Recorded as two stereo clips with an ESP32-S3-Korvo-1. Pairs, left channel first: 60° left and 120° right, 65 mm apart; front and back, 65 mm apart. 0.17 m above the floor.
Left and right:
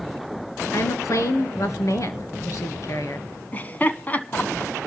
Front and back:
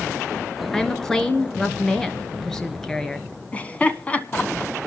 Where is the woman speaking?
80° left, 2.0 m.